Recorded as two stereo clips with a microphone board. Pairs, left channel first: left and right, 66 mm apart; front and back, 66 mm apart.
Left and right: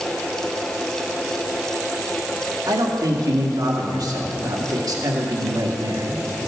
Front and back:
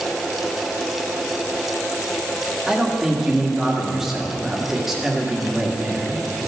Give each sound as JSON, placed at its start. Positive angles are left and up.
{"t": 2.7, "sound": "a man speaking", "azimuth_deg": -95, "distance_m": 1.6}